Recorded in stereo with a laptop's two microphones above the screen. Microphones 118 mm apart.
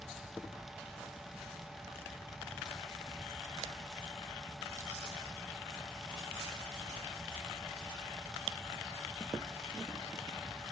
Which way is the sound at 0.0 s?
Centre (ahead or behind).